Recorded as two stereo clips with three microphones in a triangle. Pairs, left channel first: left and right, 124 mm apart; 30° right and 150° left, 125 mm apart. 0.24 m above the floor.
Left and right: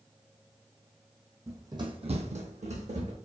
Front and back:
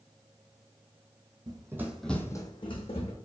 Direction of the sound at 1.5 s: 155° right.